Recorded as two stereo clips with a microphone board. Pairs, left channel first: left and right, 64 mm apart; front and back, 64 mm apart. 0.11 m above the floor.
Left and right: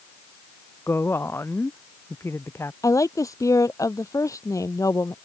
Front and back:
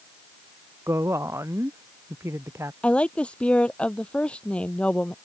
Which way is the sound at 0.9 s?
140° left.